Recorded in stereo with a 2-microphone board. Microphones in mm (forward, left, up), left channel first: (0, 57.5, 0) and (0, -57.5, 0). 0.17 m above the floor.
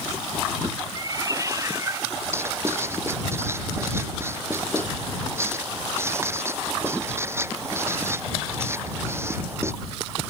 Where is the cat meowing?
30° right (ahead or behind); by 2.1 s 25° right (ahead or behind).